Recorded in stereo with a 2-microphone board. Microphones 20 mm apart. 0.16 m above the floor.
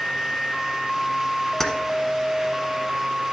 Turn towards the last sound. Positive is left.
turn(degrees=15)  # may be behind; listen again after turning